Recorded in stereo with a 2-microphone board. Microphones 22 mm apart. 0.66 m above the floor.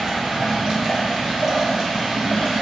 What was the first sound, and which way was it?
Running water, 45° right (ahead or behind).